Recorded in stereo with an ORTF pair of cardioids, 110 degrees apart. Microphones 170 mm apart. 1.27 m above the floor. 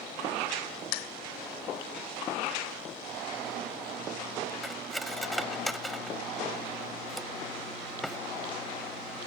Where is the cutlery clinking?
Straight ahead.